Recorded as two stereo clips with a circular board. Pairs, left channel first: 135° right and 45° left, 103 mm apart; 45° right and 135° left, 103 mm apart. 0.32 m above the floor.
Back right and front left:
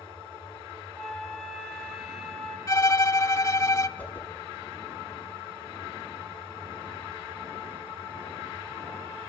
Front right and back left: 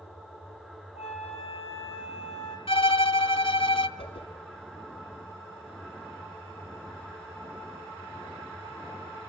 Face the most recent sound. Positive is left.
turn(degrees=-60)